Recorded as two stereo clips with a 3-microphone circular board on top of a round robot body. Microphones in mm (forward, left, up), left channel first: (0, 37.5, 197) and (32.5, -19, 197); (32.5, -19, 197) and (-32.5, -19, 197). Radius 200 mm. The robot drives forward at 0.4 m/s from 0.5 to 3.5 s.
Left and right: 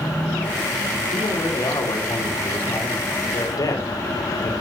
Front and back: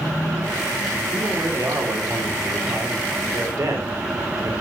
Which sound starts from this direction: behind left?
A man speaking, at 1.1 s.